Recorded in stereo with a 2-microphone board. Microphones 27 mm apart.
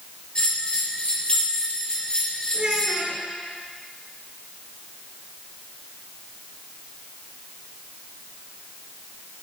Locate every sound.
0.3 s a bell: 30° left (ahead or behind), 4 m
2.5 s a child speaking: 55° right (ahead or behind), 3 m